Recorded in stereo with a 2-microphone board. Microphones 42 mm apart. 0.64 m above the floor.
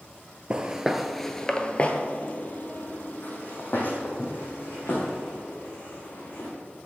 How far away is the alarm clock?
No alarm clock in this recording.